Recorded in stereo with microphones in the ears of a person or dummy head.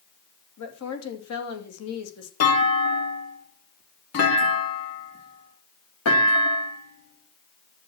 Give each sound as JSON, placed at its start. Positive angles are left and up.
{"t": 0.6, "sound": "a woman speaking", "side_deg": 80, "distance_m": 3.0}
{"t": 2.4, "sound": "a clunk", "side_deg": 85, "distance_m": 3.5}